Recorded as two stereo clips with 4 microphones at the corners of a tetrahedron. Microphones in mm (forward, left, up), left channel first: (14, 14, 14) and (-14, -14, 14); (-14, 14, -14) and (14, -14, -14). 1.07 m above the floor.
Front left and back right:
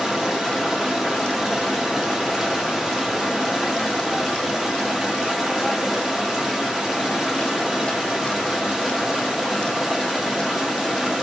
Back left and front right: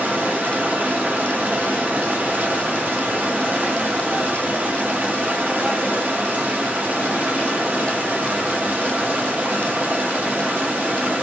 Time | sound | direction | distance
0.0 | running water | 55° right | 0.7 m